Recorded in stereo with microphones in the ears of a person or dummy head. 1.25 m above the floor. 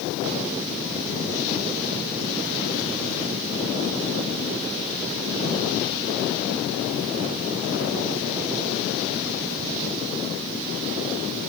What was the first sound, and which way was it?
Only background noise.